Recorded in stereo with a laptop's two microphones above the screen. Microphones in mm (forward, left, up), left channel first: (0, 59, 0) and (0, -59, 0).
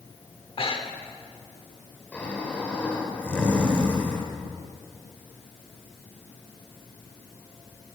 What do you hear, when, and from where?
0.4 s breathing: 50° left (ahead or behind), 1.4 m
2.1 s snoring: 10° left (ahead or behind), 2.5 m